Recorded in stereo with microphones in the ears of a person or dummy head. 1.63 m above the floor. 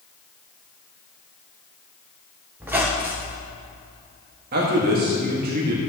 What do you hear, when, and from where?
2.6 s a squeak: 10° right (ahead or behind), 0.6 m
4.5 s a man speaking: 60° right (ahead or behind), 1.6 m